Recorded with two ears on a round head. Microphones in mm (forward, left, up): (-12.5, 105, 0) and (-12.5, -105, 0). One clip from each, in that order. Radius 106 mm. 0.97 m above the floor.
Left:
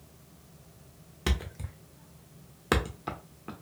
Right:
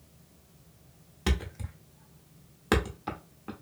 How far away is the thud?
About 0.5 m.